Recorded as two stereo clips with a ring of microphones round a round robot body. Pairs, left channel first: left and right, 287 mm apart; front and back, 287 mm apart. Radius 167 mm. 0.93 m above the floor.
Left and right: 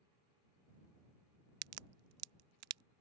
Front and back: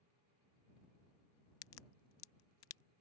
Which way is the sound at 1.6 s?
50° right.